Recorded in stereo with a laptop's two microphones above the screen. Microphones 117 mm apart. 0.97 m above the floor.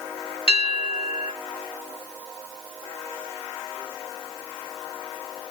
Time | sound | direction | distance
0.5 | a bell | 55° left (ahead or behind) | 1.3 m